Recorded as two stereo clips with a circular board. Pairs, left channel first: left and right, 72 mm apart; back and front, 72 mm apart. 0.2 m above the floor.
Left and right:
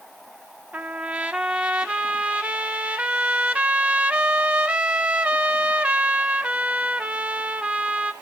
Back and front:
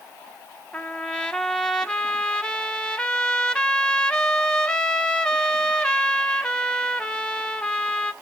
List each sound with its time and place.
0.7 s a trumpet: 125° right, 0.6 m